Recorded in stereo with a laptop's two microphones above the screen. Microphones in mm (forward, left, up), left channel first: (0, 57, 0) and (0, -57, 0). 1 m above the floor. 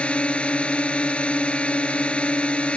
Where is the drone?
10° left (ahead or behind).